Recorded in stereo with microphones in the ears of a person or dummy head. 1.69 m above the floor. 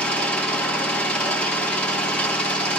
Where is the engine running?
10° left (ahead or behind), 1.8 m.